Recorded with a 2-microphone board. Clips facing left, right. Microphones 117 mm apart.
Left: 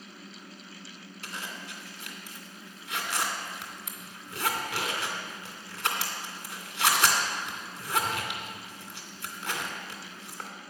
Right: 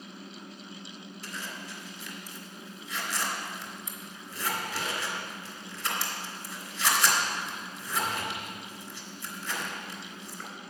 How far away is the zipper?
About 2.5 m.